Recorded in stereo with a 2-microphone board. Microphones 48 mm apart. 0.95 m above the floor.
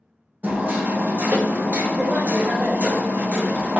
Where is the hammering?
35° right (ahead or behind), 0.5 m.